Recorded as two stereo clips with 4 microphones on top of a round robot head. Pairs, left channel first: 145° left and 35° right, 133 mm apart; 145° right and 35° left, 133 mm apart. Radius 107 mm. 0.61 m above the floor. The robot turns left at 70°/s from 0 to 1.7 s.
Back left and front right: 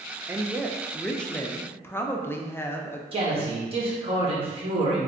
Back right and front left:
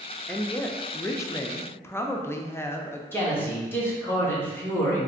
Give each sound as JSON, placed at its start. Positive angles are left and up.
{"t": 0.3, "sound": "a woman speaking", "azimuth_deg": -80, "distance_m": 0.6}
{"t": 3.1, "sound": "a man speaking", "azimuth_deg": -75, "distance_m": 1.6}